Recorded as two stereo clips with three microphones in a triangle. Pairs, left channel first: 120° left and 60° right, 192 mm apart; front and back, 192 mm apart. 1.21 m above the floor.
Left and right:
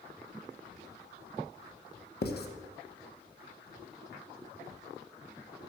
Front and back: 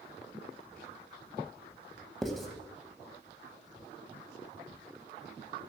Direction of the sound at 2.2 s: 90° left.